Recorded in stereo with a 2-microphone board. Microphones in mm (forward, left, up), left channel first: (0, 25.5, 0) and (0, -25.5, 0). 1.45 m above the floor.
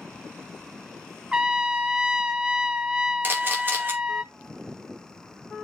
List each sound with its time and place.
1.3 s a trumpet: 15° right (ahead or behind), 0.6 m
3.2 s a camera shutter: 40° right (ahead or behind), 2.5 m